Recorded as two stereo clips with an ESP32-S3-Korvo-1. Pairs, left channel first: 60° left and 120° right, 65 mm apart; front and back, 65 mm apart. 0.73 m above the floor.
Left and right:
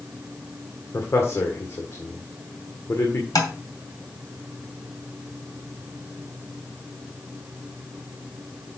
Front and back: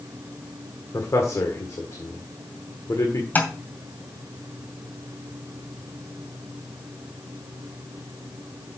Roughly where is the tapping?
Ahead left.